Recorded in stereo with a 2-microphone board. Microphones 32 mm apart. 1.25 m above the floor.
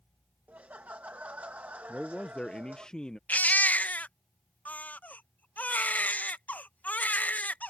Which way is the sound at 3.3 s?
55° left (ahead or behind).